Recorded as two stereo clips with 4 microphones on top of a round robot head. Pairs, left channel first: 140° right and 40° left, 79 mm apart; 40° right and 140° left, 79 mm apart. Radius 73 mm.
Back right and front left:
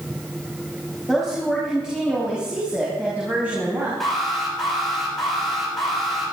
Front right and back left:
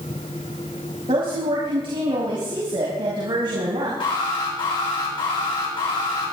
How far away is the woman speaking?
About 5 m.